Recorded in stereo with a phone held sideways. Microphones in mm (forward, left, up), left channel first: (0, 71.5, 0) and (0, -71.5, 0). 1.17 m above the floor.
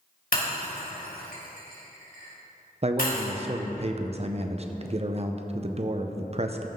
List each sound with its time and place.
0.3 s breaking glass: 80° left, 3 m
2.8 s a man speaking: 45° right (ahead or behind), 0.6 m